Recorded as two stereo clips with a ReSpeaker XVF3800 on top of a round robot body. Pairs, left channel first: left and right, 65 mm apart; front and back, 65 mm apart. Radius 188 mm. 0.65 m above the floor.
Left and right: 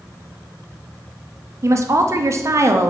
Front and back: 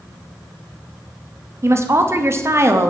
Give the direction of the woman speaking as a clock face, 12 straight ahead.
4 o'clock.